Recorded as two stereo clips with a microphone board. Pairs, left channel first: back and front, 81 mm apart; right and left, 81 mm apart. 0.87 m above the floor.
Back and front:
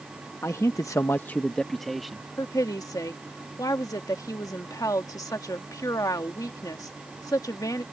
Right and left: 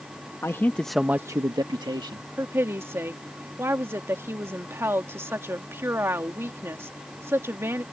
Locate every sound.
0.4 s a man speaking: 135° right; by 2.3 s 85° left
2.4 s a woman speaking: 145° left